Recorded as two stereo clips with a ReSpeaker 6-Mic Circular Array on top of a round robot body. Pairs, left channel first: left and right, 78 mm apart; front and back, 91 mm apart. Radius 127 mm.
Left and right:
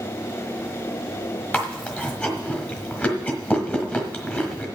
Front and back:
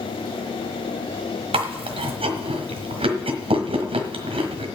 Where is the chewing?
165° left, 1.2 m.